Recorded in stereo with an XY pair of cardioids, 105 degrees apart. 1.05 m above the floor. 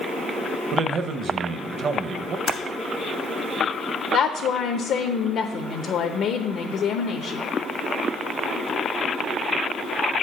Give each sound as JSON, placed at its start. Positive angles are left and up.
{"t": 0.7, "sound": "a man speaking", "azimuth_deg": -55, "distance_m": 0.6}
{"t": 2.5, "sound": "typing on a keyboard", "azimuth_deg": 60, "distance_m": 1.2}
{"t": 4.1, "sound": "a woman speaking", "azimuth_deg": 70, "distance_m": 0.7}